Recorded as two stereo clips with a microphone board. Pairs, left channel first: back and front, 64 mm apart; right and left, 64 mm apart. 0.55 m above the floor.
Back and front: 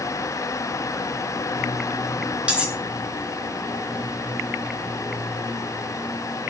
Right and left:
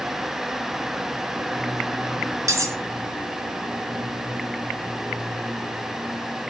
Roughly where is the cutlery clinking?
Left.